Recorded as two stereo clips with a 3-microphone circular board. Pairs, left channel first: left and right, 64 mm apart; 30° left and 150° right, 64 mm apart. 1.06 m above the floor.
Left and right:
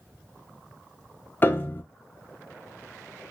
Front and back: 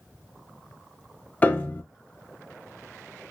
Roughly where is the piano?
Left.